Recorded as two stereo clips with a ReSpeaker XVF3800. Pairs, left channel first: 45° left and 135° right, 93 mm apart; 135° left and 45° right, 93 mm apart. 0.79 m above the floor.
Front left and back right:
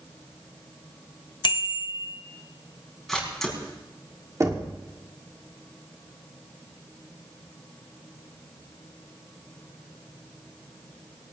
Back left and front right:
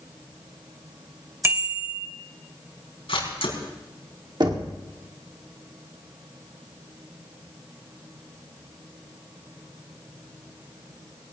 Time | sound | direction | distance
1.4 | a bicycle bell | 15° left | 2.5 m
3.1 | a camera shutter | 135° left | 5.5 m
4.4 | knocking | 80° right | 1.7 m